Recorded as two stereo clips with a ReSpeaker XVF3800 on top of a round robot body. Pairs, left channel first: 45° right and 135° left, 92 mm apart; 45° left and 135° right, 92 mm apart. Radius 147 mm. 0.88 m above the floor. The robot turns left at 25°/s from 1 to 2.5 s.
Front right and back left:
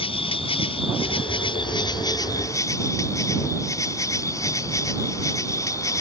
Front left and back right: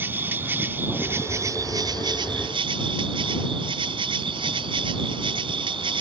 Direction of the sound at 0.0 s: 65° right.